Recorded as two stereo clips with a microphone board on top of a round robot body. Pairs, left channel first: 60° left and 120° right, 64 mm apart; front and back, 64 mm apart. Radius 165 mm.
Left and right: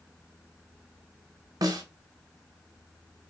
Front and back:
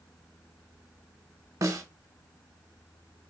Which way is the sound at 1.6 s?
140° right.